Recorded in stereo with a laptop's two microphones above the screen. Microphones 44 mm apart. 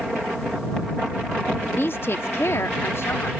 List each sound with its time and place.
1.6 s a woman speaking: 45° left (ahead or behind); by 3.3 s 70° left (ahead or behind)